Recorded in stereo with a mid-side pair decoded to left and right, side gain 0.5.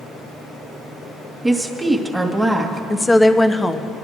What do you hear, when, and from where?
1.4 s a woman speaking: 10° right, 2 m
2.9 s a woman speaking: 15° left, 1.1 m